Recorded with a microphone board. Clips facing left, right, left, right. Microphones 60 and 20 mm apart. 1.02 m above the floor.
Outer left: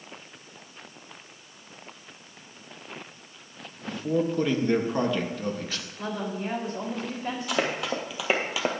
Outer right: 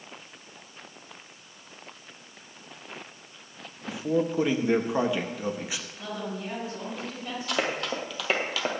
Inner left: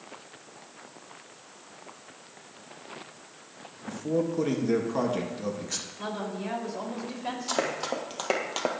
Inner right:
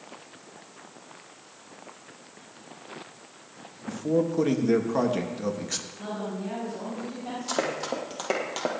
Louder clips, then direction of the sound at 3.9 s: Even, inner right 3 dB; 10° right (ahead or behind).